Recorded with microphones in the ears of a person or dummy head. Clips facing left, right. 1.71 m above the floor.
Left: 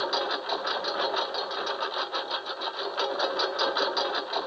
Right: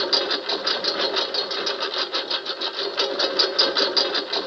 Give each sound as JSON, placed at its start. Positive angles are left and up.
{"t": 0.0, "sound": "a lawn mower", "side_deg": -35}